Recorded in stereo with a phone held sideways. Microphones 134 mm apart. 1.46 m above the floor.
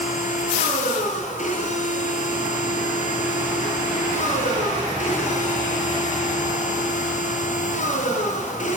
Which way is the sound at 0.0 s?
70° left (ahead or behind).